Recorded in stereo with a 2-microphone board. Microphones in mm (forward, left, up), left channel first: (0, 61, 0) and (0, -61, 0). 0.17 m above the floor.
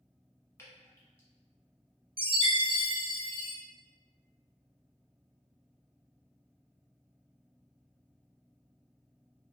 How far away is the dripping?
About 1.2 m.